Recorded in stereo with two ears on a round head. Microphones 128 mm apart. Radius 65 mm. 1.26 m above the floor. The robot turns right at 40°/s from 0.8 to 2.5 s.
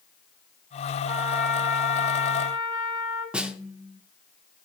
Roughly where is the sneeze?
No sneeze in this recording.